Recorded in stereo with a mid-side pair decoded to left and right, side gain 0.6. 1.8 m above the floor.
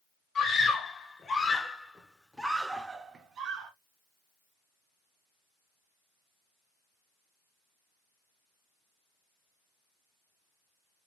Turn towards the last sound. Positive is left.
turn(degrees=-75)